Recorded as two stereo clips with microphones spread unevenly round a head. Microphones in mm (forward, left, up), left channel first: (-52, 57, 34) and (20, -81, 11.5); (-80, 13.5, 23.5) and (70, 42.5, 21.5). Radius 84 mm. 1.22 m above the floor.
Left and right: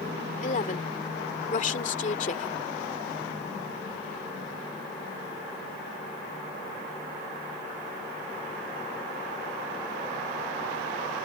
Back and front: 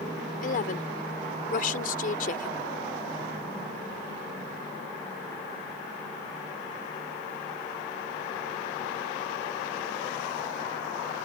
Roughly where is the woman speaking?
Behind.